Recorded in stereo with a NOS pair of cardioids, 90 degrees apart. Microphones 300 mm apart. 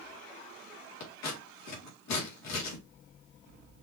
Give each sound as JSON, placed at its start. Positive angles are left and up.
{"t": 1.0, "sound": "scissors", "azimuth_deg": 65, "distance_m": 2.0}